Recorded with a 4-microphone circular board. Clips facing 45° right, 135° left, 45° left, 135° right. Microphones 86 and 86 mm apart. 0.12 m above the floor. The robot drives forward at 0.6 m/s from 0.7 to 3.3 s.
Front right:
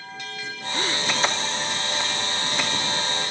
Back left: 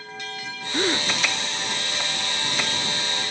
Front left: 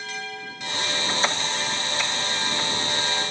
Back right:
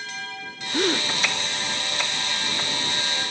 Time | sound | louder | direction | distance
0.7 | a gasp | back left 4 dB, back right 6 dB | 160° right | ?